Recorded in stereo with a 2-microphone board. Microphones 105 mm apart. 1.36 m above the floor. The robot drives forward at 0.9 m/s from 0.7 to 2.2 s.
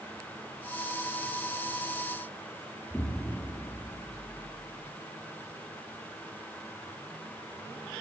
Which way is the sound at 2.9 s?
20° left (ahead or behind).